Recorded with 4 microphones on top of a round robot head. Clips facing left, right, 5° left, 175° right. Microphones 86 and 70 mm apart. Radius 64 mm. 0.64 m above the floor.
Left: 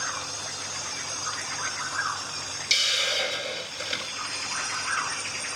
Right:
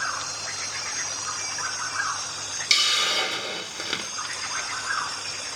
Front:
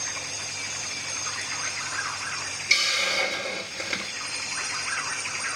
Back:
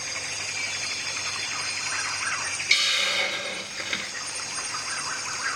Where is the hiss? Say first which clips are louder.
Right 3 dB, front 1 dB; 80° right, 1.7 m.